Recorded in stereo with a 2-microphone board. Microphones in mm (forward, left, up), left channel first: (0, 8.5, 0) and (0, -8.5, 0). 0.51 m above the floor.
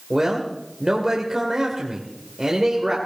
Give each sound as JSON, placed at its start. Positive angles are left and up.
{"t": 0.1, "sound": "a man speaking", "side_deg": -40, "distance_m": 2.5}